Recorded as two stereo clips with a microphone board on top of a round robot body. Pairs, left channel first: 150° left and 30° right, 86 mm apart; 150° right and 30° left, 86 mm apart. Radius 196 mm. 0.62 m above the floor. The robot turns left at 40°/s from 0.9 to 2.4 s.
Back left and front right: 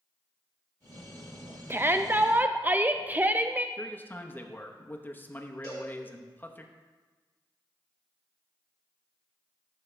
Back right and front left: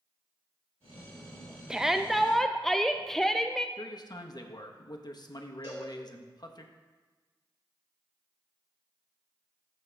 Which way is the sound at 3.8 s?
145° right.